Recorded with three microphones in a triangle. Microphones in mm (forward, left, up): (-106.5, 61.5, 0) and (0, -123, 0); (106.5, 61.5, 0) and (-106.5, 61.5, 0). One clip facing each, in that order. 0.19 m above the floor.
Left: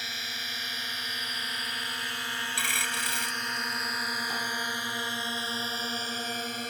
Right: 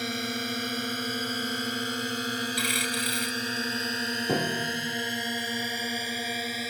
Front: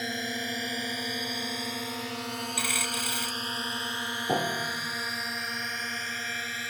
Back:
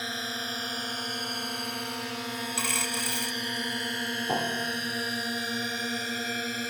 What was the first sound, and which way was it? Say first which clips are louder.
A drone: right 15 dB, front 3 dB; 70° right.